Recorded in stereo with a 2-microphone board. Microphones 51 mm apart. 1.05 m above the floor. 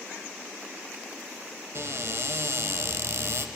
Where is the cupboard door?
60° right (ahead or behind), 1.5 m.